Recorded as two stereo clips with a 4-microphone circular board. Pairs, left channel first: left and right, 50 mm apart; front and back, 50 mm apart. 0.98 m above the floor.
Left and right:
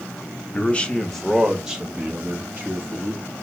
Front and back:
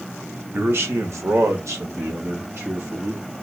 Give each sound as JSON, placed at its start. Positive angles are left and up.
{"t": 0.5, "sound": "a man speaking", "azimuth_deg": 145, "distance_m": 0.8}